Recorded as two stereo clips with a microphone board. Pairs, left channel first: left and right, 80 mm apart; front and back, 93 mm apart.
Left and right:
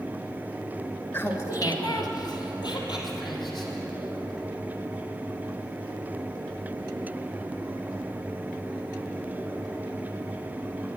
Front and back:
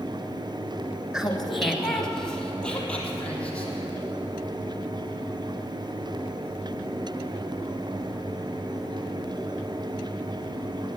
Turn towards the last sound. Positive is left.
turn(degrees=75)